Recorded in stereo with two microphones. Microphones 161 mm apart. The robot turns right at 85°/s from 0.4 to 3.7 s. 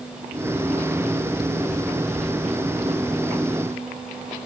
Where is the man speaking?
I don't hear a man speaking.